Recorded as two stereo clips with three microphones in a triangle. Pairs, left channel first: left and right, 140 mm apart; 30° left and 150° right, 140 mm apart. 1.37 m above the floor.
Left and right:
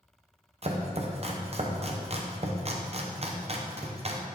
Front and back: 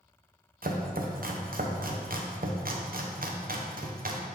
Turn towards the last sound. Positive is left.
turn(degrees=-135)